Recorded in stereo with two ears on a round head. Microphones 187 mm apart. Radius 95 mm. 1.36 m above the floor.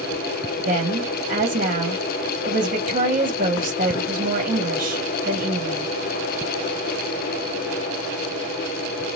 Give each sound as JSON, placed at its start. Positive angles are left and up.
{"t": 0.7, "sound": "a woman speaking", "side_deg": -35, "distance_m": 1.7}